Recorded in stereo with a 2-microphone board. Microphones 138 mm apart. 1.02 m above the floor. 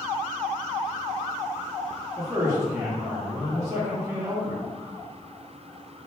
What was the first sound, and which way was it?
A man speaking, 20° right (ahead or behind).